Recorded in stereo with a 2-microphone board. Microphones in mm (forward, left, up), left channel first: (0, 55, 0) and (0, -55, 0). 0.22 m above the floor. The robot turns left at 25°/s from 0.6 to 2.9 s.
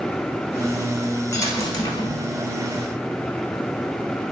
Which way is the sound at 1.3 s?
25° left (ahead or behind).